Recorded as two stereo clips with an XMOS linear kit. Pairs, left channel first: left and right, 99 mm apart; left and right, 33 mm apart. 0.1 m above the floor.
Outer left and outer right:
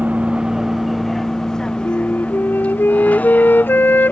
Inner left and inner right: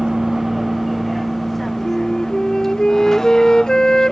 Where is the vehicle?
15° right (ahead or behind); by 4.1 s 20° left (ahead or behind).